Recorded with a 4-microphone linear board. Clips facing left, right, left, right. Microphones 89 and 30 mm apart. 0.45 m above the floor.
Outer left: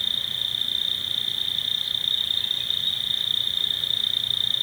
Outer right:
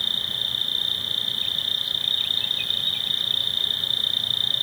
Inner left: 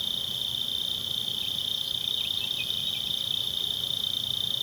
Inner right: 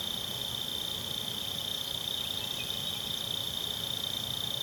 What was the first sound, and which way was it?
An insect, 30° left (ahead or behind).